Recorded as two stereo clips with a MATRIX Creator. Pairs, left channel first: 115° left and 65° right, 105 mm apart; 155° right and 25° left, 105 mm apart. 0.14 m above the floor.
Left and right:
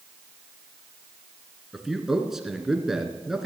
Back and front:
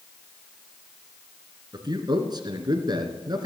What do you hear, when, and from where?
1.7 s a man speaking: 20° left, 2.0 m